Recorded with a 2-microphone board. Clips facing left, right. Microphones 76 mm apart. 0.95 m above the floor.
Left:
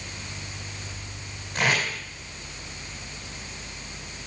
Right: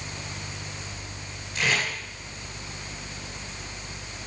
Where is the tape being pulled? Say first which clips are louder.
Left 2 dB; 50° left (ahead or behind), 4 m.